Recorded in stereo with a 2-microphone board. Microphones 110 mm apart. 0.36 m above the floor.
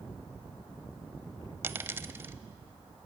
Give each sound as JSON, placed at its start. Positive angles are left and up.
{"t": 1.6, "sound": "a dropped coin", "side_deg": -20, "distance_m": 0.7}